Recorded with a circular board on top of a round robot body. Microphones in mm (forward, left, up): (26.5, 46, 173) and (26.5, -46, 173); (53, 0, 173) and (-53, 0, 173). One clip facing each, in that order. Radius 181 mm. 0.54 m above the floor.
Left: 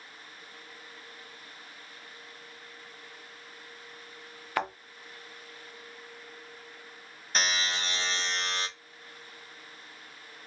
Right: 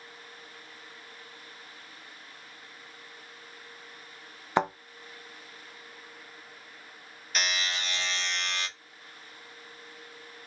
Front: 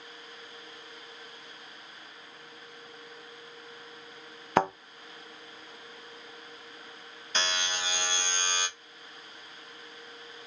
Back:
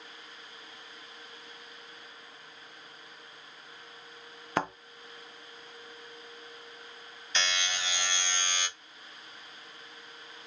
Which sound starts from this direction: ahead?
A thud, at 4.6 s.